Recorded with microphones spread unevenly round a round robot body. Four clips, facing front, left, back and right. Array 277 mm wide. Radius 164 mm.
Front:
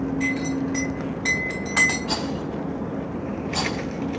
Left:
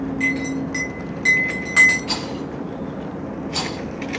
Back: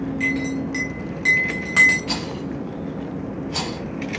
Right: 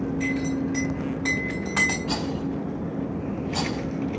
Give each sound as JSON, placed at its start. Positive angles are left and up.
{"t": 0.2, "sound": "a clink", "azimuth_deg": 175, "distance_m": 3.0}
{"t": 2.1, "sound": "a rattle", "azimuth_deg": 155, "distance_m": 4.5}